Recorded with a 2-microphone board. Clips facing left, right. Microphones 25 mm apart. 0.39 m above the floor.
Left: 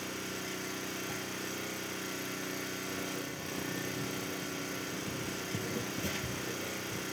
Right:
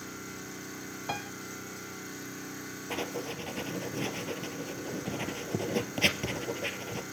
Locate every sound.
0.0 s an engine running: 85° left, 8.5 m
1.1 s a piano: 65° right (ahead or behind), 0.8 m
2.9 s writing: 85° right, 2 m